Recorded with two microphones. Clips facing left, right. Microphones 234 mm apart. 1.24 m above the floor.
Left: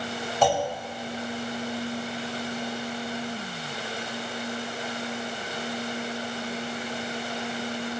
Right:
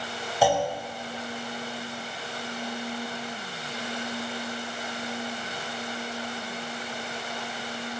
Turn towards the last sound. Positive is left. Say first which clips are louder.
# right 1 dB
turn(degrees=-10)  # may be behind; listen again after turning